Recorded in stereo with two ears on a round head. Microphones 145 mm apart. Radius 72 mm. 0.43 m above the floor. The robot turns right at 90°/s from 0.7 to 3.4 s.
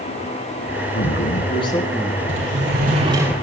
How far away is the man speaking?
About 5 m.